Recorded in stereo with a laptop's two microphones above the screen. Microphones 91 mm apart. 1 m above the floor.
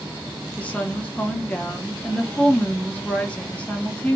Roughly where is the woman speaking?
Centre.